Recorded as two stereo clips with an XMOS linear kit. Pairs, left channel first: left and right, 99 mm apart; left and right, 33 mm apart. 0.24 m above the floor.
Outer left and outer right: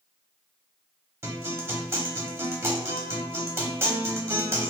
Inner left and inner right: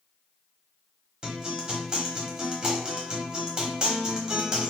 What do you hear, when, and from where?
1.2 s a guitar: 25° right (ahead or behind), 0.8 m